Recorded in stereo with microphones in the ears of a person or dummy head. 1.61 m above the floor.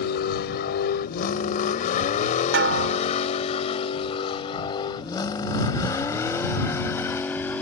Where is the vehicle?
65° left (ahead or behind); by 7.6 s 10° left (ahead or behind).